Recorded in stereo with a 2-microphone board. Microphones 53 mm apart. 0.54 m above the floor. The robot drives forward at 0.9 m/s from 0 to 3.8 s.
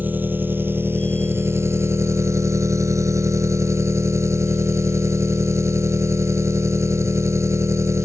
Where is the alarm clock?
I don't hear an alarm clock.